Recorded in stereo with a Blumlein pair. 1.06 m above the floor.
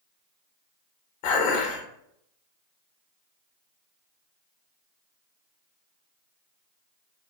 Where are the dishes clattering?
50° left, 0.9 m.